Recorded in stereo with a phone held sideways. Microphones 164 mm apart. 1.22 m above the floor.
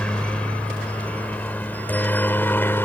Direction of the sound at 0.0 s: 5° left (ahead or behind).